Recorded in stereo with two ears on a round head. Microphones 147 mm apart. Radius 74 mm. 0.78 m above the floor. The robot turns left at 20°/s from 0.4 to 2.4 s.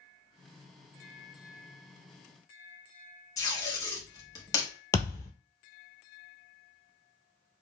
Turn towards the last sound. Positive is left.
turn(degrees=15)  # may be behind; listen again after turning